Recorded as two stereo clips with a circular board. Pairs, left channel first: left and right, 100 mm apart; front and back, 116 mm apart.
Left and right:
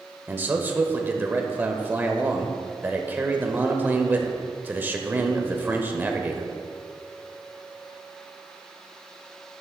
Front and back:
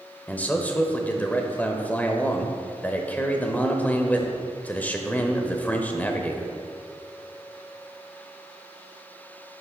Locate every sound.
0.3 s a man speaking: 50° right, 0.8 m